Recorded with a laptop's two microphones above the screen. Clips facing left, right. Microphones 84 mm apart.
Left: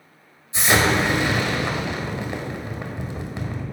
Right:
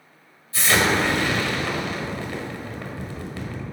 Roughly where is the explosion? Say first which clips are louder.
Left 1 dB; centre.